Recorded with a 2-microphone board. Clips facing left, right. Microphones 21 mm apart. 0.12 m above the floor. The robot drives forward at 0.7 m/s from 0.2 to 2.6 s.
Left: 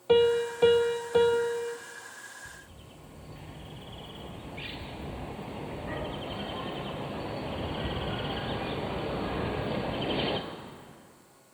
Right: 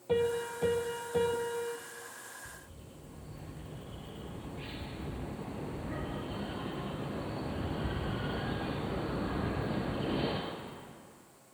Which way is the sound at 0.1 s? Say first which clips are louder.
Left 8 dB; 70° left (ahead or behind).